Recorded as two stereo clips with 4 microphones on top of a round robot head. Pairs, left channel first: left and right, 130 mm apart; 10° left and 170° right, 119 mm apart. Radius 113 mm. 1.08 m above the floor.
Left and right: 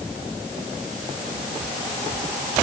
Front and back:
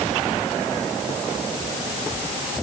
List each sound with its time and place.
Only background noise.